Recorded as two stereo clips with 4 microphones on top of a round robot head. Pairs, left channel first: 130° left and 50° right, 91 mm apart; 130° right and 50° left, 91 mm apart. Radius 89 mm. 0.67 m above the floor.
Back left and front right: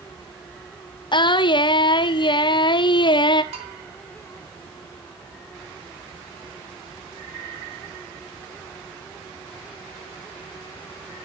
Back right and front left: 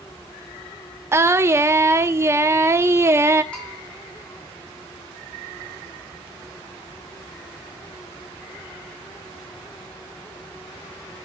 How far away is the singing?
About 1.0 m.